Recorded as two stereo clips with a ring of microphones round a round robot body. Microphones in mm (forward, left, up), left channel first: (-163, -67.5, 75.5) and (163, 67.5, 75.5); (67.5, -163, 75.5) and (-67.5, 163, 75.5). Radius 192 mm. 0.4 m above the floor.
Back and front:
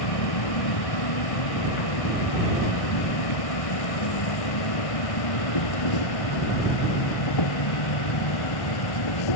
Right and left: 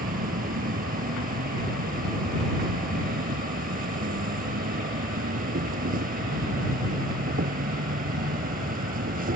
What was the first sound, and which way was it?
An insect, straight behind.